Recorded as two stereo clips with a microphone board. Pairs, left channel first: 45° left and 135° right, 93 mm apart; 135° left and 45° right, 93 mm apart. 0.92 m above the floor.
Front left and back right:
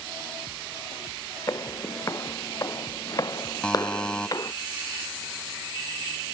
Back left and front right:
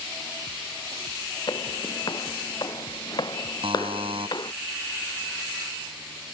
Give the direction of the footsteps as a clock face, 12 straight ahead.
9 o'clock.